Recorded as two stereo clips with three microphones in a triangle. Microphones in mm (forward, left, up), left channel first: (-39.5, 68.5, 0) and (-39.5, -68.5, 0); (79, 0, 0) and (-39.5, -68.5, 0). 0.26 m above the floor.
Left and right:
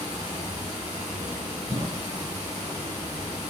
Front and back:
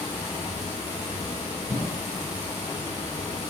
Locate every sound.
0.0 s running water: 35° right, 0.9 m
1.7 s a cough: 65° right, 1.2 m